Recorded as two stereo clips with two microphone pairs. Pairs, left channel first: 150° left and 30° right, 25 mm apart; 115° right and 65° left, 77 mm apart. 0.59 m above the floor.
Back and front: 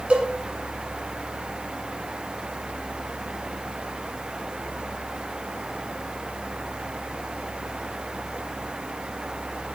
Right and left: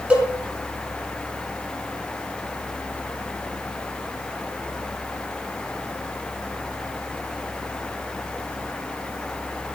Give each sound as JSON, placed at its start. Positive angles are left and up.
{"t": 0.1, "sound": "a cowbell", "azimuth_deg": -10, "distance_m": 1.6}